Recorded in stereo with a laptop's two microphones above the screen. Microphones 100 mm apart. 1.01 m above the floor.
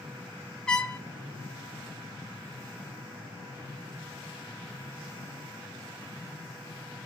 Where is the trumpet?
10° left (ahead or behind), 0.7 m.